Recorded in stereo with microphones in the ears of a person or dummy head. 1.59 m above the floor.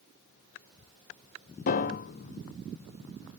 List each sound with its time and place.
1.7 s a piano: 50° left (ahead or behind), 0.7 m